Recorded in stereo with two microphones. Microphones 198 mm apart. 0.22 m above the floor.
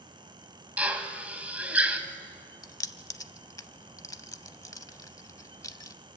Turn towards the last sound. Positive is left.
turn(degrees=20)  # may be behind; listen again after turning